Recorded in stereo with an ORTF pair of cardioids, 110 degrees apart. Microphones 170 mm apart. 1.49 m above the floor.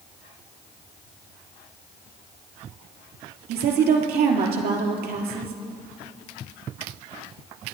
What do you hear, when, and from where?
3.5 s a woman speaking: 70° right, 3 m